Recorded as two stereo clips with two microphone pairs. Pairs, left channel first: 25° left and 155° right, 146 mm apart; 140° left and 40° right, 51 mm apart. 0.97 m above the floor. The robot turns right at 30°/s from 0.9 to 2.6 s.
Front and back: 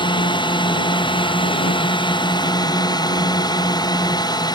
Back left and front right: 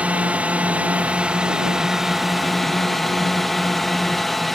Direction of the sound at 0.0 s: 5° left.